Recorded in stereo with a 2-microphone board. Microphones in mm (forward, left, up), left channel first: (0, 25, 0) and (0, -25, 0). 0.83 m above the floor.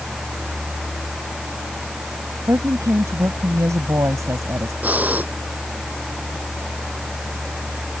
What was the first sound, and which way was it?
A woman speaking, 80° right.